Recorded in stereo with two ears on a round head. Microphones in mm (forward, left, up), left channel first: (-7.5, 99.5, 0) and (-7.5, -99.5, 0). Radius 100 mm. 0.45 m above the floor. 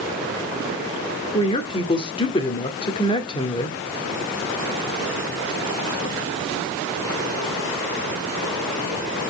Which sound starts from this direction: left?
A woman speaking, at 1.3 s.